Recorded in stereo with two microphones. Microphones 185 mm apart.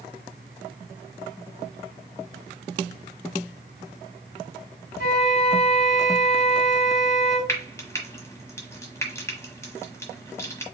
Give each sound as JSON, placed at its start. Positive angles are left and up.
{"t": 5.0, "sound": "a flute", "side_deg": 55, "distance_m": 2.5}
{"t": 7.5, "sound": "frying", "side_deg": 15, "distance_m": 1.3}